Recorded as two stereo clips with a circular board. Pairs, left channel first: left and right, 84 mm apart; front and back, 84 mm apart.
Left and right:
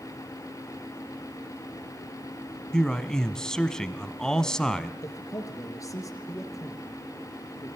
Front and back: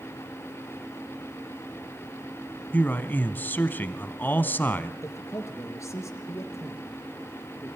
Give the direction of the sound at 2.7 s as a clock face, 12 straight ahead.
11 o'clock.